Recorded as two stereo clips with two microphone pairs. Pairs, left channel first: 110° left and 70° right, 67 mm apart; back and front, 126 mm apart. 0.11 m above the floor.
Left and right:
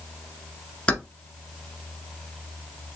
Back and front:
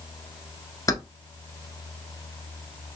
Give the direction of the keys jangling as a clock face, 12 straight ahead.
7 o'clock.